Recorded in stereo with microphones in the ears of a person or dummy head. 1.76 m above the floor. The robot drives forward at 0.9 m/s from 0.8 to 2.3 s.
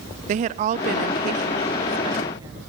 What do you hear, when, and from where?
0.3 s a woman speaking: 50° right (ahead or behind), 0.5 m; by 2.6 s 20° right (ahead or behind), 1.2 m